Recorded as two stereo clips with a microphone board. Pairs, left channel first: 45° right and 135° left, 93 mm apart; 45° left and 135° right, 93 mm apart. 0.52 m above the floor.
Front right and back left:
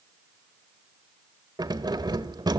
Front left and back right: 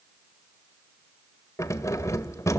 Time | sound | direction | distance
1.6 | keys jangling | 100° left | 1.5 m